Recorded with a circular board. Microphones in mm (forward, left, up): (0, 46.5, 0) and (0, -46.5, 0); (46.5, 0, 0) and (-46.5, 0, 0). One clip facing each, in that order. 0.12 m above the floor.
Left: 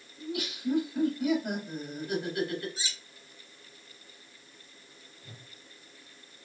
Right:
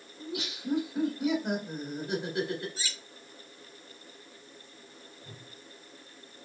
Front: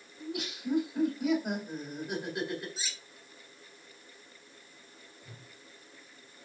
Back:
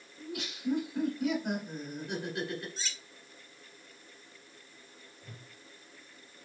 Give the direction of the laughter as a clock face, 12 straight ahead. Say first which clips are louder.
Left 3 dB, front 1 dB; 3 o'clock.